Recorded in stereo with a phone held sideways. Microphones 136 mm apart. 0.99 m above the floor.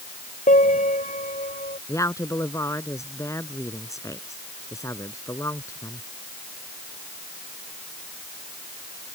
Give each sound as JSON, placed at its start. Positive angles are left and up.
{"t": 0.5, "sound": "a piano", "side_deg": 65}
{"t": 1.9, "sound": "a woman speaking", "side_deg": 20}